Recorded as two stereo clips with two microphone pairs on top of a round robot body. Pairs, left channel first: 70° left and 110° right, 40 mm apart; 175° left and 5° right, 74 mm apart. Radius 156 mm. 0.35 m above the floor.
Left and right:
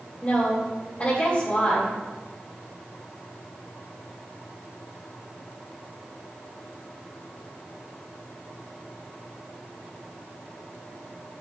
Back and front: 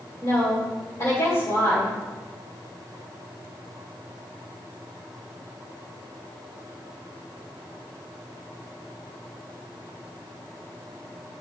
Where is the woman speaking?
135° left, 2.5 m.